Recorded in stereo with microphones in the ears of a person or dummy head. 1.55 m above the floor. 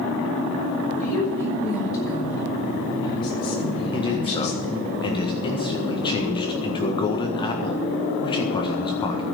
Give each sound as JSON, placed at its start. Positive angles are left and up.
{"t": 1.0, "sound": "a woman speaking", "side_deg": 20, "distance_m": 6.0}
{"t": 3.9, "sound": "a man speaking", "side_deg": 20, "distance_m": 1.6}